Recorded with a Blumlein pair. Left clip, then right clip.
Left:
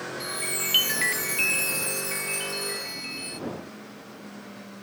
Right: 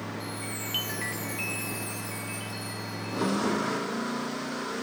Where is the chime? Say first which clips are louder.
Left 6 dB; 65° left.